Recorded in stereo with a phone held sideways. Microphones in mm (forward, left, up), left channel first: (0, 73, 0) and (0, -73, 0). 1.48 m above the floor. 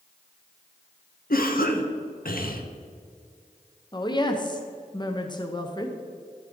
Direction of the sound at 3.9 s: 30° left (ahead or behind).